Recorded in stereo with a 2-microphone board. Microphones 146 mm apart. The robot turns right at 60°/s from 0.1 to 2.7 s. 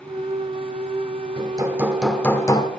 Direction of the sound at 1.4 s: 40° right.